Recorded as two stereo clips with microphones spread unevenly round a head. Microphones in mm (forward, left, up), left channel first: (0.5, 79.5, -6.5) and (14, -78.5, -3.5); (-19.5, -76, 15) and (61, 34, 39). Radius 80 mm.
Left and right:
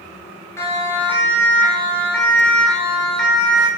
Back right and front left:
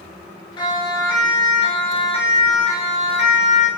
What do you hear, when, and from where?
0.6 s a siren: 170° left, 5.5 m; by 3.7 s 175° right, 7 m